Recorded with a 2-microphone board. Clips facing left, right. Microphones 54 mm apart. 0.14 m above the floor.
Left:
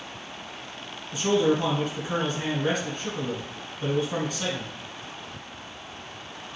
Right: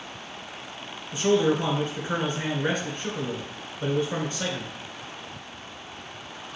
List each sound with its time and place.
1.1 s a man speaking: 35° right (ahead or behind), 1.8 m